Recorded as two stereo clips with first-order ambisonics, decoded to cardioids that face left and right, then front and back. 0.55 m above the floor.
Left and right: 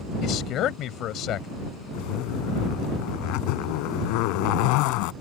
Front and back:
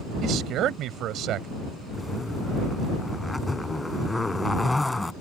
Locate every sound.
0.2 s a man speaking: 135° left
1.9 s a zipper: 80° left